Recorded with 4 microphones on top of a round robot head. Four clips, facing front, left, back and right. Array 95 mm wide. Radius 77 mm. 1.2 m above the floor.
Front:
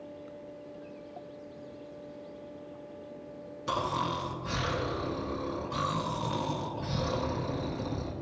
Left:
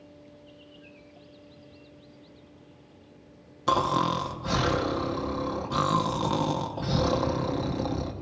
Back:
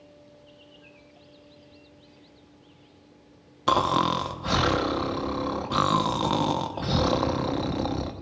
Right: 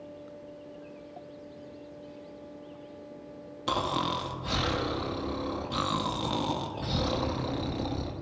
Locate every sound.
3.7 s snoring: 160° left, 0.8 m